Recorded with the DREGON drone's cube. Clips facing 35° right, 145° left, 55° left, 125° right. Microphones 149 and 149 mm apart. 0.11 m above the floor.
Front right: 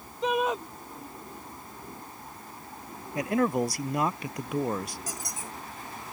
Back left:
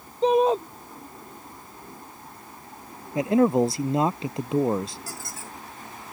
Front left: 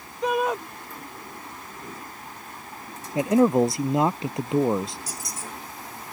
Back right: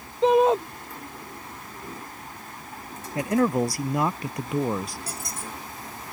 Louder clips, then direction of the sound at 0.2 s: Back left 8 dB, back right 6 dB; 175° right.